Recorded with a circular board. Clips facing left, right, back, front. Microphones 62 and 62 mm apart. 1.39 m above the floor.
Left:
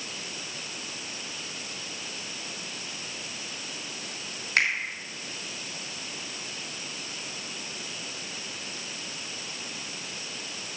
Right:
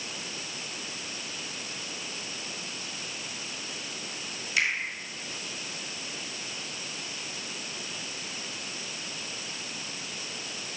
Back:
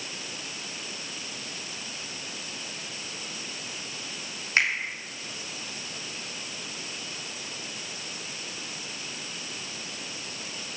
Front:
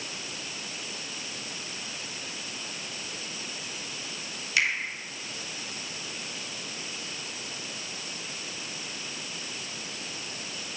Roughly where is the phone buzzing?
I don't hear a phone buzzing.